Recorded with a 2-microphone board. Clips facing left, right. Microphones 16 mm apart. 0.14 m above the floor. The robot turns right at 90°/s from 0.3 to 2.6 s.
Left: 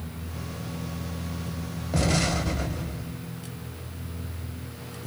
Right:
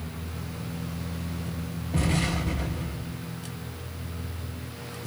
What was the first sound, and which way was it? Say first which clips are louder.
An explosion: left 2 dB; 75° left.